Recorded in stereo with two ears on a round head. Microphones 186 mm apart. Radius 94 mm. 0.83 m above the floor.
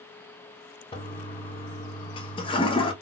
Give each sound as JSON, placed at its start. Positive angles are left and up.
{"t": 0.9, "sound": "a toilet flushing", "side_deg": 25, "distance_m": 0.7}